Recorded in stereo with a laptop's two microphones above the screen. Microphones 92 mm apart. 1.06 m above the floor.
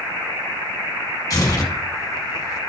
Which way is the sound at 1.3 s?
35° left (ahead or behind).